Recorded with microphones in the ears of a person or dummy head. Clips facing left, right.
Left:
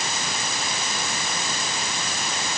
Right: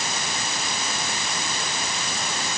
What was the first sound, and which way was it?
Only background noise.